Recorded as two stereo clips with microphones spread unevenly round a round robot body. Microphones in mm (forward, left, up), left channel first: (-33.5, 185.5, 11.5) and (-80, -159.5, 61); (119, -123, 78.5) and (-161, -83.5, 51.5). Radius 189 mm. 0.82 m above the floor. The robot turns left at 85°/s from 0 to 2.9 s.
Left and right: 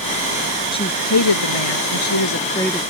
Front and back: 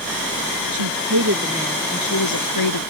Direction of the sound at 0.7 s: 160° left.